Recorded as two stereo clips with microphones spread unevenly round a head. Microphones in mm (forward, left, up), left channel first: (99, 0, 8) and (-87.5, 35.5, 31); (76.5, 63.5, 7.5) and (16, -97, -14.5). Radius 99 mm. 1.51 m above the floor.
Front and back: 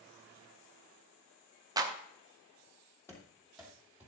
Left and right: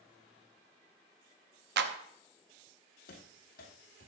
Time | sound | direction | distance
1.8 | a clap | 130° right | 0.8 m
3.1 | running footsteps | 70° left | 2.5 m